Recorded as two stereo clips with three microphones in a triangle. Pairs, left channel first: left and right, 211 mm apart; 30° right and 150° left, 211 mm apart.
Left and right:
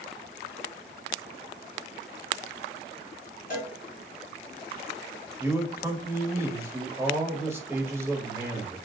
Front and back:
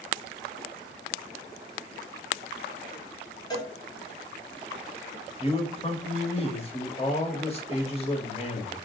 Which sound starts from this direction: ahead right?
A man speaking, at 5.4 s.